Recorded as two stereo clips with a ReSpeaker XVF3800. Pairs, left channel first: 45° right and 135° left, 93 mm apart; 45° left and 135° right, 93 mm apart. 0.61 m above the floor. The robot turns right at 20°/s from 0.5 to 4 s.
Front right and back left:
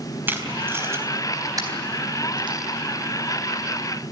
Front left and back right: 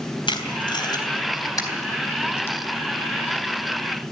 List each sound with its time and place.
0.3 s tape being pulled: 70° left, 3.5 m; by 2.6 s 110° left, 3.5 m